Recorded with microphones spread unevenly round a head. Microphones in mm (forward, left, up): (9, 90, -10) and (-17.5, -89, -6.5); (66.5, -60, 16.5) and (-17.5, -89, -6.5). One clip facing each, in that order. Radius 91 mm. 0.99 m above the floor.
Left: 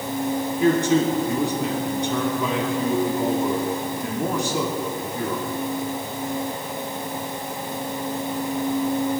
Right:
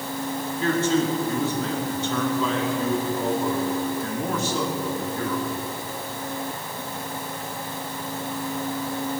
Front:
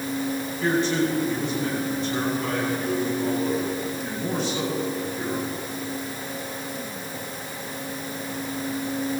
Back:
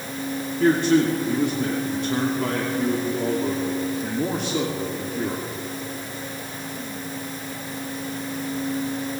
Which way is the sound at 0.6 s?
155° left.